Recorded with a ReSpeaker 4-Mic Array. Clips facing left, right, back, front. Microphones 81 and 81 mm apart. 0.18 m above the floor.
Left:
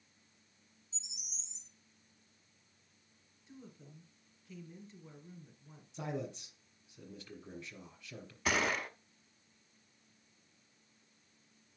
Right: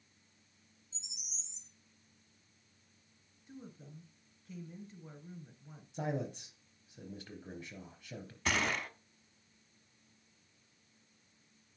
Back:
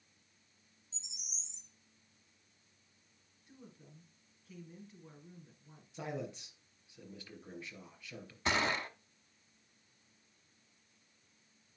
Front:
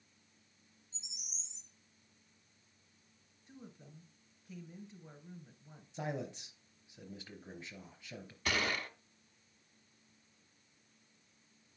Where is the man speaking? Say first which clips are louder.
Right 3 dB, front 1 dB; 65° right, 3.5 m.